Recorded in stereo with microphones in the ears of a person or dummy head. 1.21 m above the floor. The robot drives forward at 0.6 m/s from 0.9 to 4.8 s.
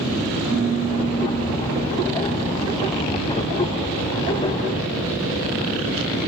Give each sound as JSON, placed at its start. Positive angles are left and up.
{"t": 0.5, "sound": "a piano", "side_deg": -15, "distance_m": 2.0}